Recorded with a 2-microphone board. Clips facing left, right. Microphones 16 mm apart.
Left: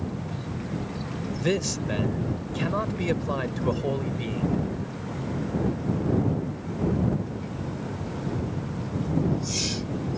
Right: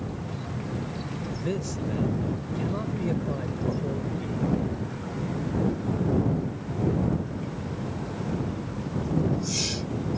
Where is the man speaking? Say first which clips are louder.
Left 6 dB; 50° left (ahead or behind).